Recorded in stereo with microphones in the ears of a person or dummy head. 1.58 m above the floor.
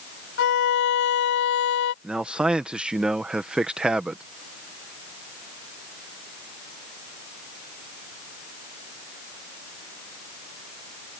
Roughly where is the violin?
Left.